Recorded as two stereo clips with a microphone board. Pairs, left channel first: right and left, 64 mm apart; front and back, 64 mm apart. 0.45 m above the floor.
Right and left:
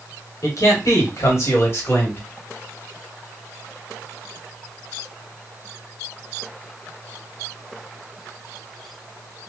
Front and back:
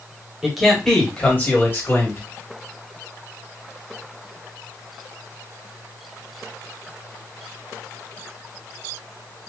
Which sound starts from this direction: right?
A man speaking, at 0.4 s.